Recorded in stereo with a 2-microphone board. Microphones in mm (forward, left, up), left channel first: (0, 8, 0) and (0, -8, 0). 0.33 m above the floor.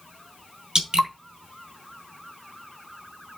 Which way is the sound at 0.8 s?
65° right (ahead or behind).